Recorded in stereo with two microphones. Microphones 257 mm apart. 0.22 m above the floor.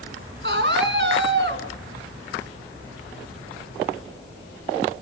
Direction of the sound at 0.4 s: 50° right (ahead or behind).